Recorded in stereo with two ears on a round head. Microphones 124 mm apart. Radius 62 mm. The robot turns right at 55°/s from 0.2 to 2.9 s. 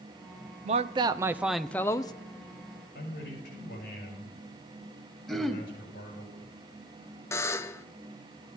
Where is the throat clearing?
Centre (ahead or behind), 1.4 m.